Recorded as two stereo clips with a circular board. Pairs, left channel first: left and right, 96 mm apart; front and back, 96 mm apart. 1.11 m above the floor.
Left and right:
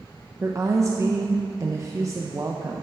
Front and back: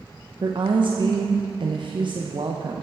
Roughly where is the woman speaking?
Behind right.